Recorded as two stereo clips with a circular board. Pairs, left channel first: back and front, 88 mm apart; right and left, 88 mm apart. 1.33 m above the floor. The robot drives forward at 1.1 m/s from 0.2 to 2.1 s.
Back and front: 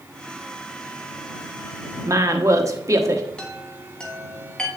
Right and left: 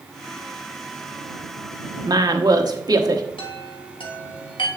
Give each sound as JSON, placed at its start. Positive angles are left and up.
{"t": 2.0, "sound": "a woman speaking", "azimuth_deg": 45, "distance_m": 1.1}
{"t": 3.4, "sound": "a chime", "azimuth_deg": -100, "distance_m": 1.3}